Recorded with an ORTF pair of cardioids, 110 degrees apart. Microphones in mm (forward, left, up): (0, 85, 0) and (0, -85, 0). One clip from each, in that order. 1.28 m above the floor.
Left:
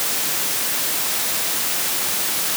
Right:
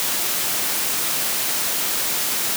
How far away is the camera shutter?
No camera shutter in this recording.